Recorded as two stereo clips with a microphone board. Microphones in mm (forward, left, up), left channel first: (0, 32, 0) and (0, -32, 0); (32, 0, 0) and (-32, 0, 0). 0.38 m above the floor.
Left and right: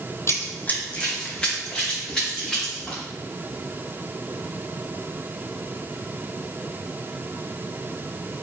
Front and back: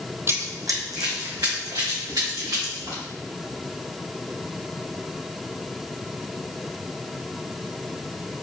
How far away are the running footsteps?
About 0.7 m.